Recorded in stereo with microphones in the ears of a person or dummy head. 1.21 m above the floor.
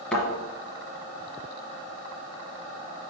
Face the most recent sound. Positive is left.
turn(degrees=5)  # may be behind; listen again after turning